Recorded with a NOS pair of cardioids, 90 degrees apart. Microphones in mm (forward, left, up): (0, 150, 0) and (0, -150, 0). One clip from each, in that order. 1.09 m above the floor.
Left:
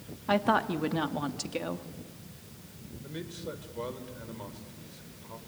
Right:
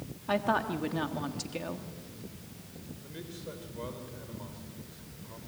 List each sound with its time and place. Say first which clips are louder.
0.3 s a woman speaking: left 3 dB; 20° left, 1.5 m
3.0 s a man speaking: left 5 dB; 30° left, 3.5 m